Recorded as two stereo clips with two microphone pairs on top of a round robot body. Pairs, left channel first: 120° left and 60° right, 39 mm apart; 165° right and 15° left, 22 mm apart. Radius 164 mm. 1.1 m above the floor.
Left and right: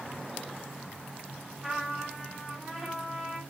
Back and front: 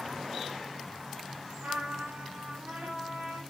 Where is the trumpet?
25° left, 2.5 m.